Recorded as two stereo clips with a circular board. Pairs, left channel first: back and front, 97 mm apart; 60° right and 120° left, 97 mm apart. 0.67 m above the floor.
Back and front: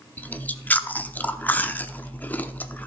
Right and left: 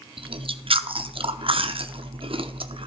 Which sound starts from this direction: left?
Chewing, at 0.2 s.